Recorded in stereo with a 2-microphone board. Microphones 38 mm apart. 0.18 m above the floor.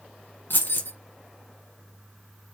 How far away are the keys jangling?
About 1.8 m.